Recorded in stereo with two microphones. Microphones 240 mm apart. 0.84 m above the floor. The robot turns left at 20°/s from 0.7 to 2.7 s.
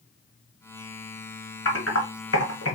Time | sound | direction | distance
1.6 | typing on a keyboard | 65° left (ahead or behind) | 1.5 m